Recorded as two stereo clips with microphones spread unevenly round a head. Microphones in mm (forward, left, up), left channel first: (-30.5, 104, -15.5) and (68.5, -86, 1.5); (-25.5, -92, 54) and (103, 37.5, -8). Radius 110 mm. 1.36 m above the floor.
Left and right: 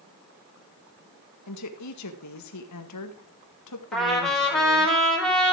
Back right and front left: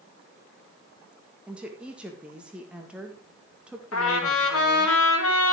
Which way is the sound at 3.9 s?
155° right.